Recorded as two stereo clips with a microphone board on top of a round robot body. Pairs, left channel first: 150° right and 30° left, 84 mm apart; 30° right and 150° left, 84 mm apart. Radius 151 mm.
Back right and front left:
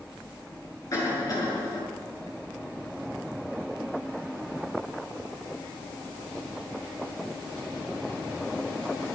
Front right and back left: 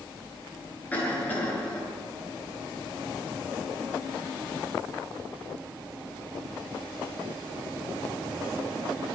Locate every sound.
0.9 s a cough: 100° right, 7.5 m